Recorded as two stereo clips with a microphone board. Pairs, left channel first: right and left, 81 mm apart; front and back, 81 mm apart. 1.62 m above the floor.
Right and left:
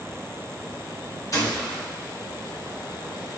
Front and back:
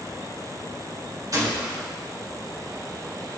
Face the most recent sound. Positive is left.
turn(degrees=-135)